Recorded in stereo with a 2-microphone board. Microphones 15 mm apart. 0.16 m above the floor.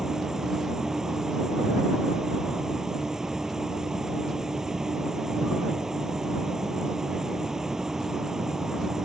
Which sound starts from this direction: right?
An insect, at 0.0 s.